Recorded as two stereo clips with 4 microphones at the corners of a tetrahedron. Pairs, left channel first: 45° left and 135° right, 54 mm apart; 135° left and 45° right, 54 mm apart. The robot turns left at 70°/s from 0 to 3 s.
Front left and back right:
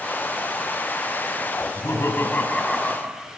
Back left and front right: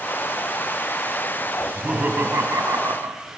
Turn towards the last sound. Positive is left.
turn(degrees=-55)